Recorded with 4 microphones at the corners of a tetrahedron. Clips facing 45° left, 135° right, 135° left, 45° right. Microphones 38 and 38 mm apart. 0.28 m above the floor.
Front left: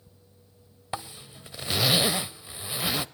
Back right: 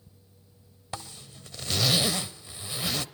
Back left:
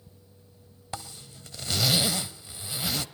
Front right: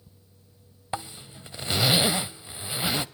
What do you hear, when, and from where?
0.9 s a zipper: 10° right, 0.8 m